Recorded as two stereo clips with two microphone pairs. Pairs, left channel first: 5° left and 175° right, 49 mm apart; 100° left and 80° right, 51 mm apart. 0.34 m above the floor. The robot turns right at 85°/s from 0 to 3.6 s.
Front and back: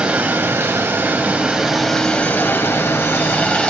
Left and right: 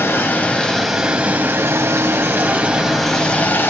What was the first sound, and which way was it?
Running water, 120° left.